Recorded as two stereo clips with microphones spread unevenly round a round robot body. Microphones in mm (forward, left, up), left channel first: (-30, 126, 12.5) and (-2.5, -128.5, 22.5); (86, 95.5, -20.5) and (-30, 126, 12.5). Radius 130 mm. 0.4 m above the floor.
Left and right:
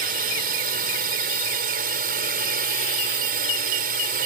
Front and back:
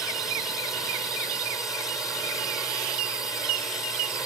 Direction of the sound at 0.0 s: 85° right.